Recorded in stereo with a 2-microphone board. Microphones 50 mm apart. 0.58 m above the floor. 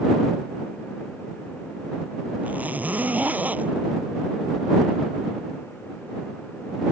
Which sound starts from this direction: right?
A zipper, at 2.4 s.